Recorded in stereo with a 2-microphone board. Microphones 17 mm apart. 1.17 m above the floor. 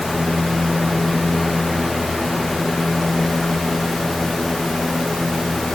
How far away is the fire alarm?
No fire alarm in this recording.